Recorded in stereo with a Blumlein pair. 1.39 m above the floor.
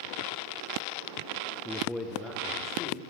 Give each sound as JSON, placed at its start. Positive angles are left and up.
{"t": 1.6, "sound": "a man speaking", "azimuth_deg": -10, "distance_m": 0.5}